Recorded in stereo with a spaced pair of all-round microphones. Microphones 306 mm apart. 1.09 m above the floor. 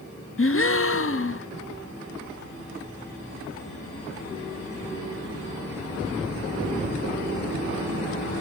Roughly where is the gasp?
Left.